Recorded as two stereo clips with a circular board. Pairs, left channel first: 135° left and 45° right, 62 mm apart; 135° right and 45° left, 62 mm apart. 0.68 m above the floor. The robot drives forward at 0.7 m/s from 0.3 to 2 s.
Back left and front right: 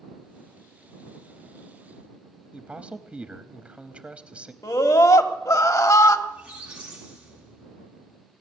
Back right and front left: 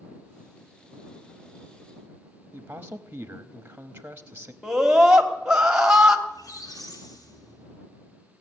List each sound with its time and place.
2.5 s a man speaking: 10° left, 0.6 m
4.6 s a scream: 125° left, 1.3 m
6.3 s a squeak: 120° right, 2.5 m